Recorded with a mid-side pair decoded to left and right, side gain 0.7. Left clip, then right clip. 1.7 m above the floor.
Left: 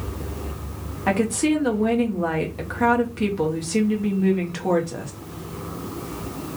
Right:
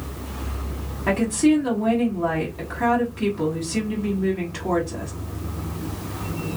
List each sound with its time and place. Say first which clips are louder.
1.1 s a woman speaking: right 1 dB; 20° left, 1.1 m